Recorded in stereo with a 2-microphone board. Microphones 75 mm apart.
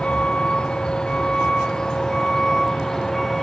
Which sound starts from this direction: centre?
A vehicle, at 0.0 s.